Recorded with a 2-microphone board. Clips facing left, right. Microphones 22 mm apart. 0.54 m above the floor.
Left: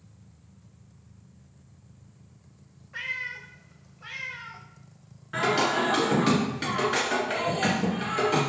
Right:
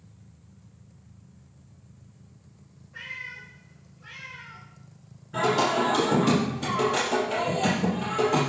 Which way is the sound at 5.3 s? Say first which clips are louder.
Right 1 dB; 75° left (ahead or behind).